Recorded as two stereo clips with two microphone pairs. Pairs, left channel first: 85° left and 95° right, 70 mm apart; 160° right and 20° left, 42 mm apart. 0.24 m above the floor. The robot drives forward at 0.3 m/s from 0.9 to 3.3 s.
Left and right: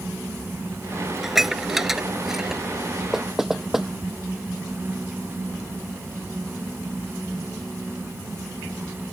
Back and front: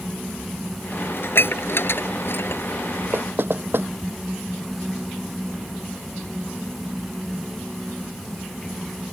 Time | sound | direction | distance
1.2 | dishes clattering | straight behind | ?
3.1 | knocking | 10° right | ?